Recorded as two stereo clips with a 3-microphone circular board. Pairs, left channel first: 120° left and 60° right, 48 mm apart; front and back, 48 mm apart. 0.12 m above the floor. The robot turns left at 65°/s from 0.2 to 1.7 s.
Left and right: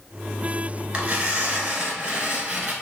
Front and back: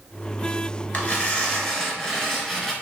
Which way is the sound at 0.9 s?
20° right.